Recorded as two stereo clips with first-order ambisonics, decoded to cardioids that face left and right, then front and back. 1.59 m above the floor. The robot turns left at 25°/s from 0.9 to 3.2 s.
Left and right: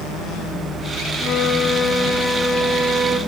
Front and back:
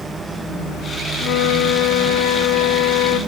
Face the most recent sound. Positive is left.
turn(degrees=-20)